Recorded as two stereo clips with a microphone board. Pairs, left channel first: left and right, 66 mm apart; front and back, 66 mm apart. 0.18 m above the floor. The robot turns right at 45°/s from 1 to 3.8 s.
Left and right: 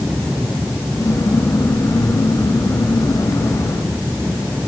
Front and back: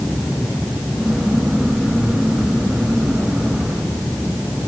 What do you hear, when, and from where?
Only background noise.